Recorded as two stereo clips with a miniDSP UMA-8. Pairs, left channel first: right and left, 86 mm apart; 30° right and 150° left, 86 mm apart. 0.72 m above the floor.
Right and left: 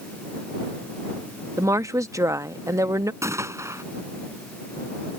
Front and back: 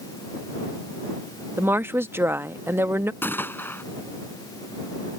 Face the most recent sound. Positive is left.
turn(degrees=35)